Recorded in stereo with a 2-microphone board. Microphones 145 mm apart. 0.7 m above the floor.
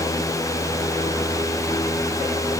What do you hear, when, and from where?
Only background noise.